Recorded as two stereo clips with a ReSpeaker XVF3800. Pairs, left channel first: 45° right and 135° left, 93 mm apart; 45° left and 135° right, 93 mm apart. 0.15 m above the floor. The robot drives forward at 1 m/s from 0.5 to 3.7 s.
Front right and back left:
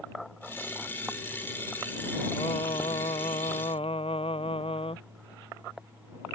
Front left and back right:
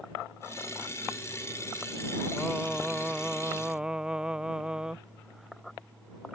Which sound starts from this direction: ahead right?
Singing, at 2.4 s.